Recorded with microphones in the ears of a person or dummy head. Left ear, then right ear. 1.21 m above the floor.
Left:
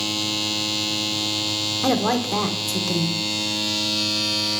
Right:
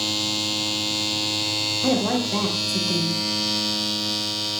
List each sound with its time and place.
1.8 s a woman speaking: 55° left (ahead or behind), 0.8 m